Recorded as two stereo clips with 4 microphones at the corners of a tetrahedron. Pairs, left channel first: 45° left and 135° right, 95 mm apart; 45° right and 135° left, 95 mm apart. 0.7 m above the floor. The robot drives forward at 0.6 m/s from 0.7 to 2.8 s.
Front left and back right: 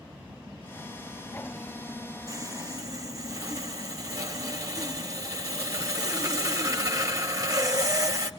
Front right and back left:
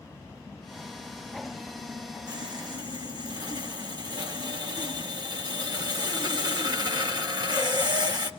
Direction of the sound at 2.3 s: 175° left.